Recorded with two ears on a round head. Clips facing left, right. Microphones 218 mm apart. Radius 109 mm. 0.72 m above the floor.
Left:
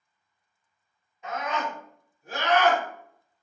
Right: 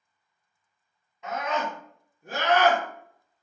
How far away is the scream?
About 1.5 m.